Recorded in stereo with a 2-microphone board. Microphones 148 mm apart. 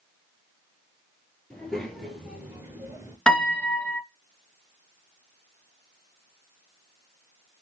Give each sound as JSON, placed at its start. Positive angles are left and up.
{"t": 1.5, "sound": "a child speaking", "side_deg": 5, "distance_m": 1.6}
{"t": 3.3, "sound": "a piano", "side_deg": 5, "distance_m": 0.5}